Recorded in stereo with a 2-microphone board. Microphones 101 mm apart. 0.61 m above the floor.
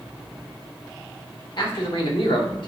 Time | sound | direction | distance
1.6 | a man speaking | 55° left (ahead or behind) | 1.5 m